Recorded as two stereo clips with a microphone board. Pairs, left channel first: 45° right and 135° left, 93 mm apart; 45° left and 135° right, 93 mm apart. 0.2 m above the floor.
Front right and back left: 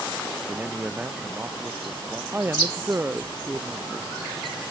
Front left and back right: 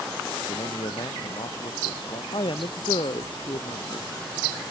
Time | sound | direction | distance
0.5 | a man speaking | 60° left | ?
2.3 | a woman speaking | 65° left | ?